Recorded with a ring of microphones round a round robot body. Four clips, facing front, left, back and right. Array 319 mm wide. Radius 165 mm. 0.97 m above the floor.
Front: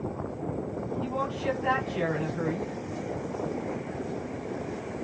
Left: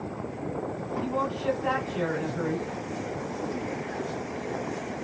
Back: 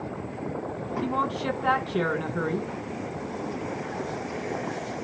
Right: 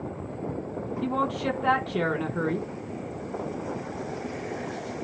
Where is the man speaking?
140° right, 3.5 m.